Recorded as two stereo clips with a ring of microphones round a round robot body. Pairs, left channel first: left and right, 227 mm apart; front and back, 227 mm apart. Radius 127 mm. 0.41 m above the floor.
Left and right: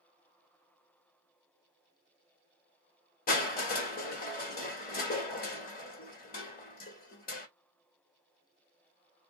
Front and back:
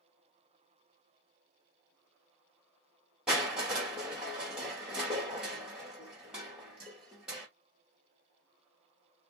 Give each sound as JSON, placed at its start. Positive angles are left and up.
{"t": 3.3, "sound": "crushing", "azimuth_deg": 95, "distance_m": 1.2}